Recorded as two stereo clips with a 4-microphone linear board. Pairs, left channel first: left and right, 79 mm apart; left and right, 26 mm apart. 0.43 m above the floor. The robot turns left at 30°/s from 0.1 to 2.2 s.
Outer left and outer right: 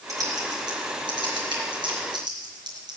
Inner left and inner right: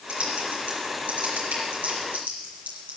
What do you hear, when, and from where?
0.1 s typing on a keyboard: 45° right (ahead or behind), 4.5 m; by 3.0 s 75° right (ahead or behind), 4.5 m